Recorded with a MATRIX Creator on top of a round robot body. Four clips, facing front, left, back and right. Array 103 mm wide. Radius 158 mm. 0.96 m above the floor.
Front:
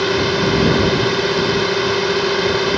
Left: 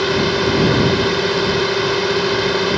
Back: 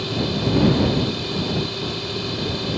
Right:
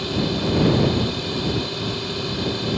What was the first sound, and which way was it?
A drone, 45° left.